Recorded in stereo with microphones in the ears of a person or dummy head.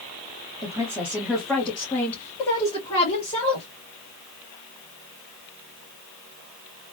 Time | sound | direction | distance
0.6 | a woman speaking | 20° right (ahead or behind) | 1.4 m